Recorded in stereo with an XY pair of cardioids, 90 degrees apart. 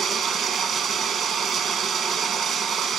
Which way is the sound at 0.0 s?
70° right.